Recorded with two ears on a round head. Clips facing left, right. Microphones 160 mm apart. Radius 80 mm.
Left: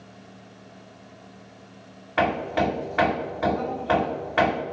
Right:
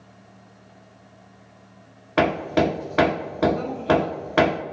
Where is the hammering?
55° right (ahead or behind), 0.9 m.